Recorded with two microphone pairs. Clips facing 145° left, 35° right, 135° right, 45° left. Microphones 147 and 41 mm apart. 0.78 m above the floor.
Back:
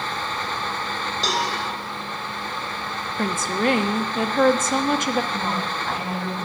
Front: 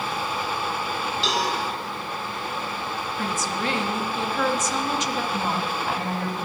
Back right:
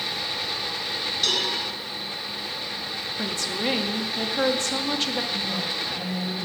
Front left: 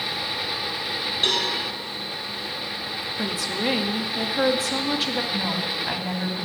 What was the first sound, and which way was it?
A cowbell, 100° left.